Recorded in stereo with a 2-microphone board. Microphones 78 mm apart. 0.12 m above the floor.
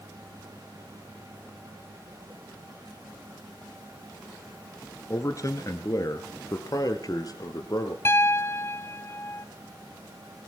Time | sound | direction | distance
5.1 | a man speaking | 40° left (ahead or behind) | 2 m
8.1 | a piano | 30° left (ahead or behind) | 0.6 m